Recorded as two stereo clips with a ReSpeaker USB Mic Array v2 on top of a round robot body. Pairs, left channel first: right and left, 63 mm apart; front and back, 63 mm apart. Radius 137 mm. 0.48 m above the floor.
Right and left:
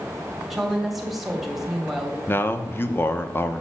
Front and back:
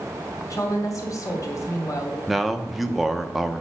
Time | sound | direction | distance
0.5 | a woman speaking | 5° left | 2 m
2.3 | a man speaking | 95° right | 1.0 m